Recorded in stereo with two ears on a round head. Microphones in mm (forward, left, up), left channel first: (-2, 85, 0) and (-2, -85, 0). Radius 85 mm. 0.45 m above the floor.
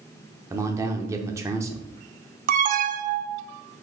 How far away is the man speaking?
About 0.7 m.